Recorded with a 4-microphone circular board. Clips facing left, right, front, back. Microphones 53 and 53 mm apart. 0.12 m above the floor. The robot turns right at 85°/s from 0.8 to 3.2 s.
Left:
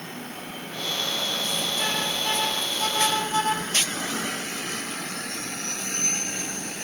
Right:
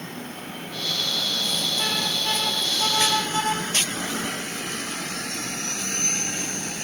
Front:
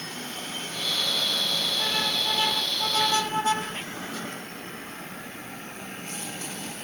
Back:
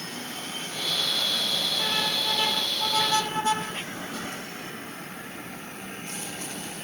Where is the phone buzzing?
I don't hear a phone buzzing.